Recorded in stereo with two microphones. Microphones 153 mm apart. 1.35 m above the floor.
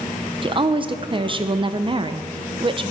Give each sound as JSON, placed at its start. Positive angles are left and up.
{"t": 0.4, "sound": "a woman speaking", "side_deg": -35, "distance_m": 0.6}